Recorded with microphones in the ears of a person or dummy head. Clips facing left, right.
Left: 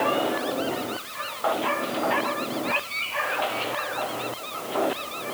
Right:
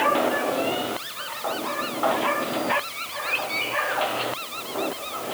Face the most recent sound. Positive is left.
No sound to turn to.